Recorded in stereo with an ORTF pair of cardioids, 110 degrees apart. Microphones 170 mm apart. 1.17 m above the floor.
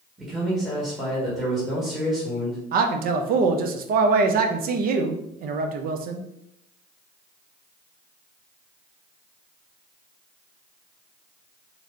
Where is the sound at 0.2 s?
5° right, 1.5 m.